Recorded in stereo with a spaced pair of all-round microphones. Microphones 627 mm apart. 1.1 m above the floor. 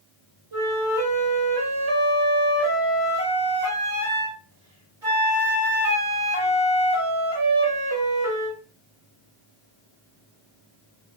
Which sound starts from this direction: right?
A flute, at 0.5 s.